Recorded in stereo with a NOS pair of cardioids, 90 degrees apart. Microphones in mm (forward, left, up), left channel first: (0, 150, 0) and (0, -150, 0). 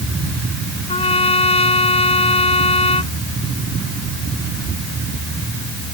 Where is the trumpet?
20° left.